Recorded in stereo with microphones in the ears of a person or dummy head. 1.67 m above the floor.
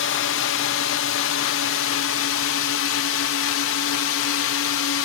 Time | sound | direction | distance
0.0 | a drone | 60° left (ahead or behind) | ?